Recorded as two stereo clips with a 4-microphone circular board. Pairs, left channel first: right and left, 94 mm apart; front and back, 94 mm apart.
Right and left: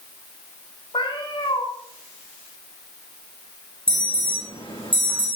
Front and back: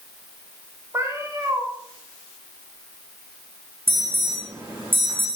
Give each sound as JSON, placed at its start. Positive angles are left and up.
{"t": 0.9, "sound": "a cat meowing", "azimuth_deg": -120, "distance_m": 5.0}
{"t": 3.9, "sound": "an alarm", "azimuth_deg": -110, "distance_m": 9.5}